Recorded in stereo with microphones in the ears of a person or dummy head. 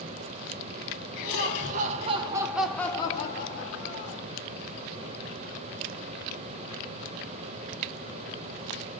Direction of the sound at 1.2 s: 55° right (ahead or behind).